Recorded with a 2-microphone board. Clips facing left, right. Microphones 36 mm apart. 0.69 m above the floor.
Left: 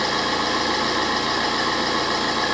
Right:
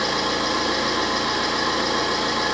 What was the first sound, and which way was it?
An engine running, 45° left (ahead or behind).